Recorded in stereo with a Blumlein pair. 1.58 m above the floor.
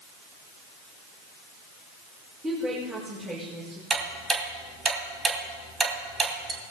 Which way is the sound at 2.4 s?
15° right.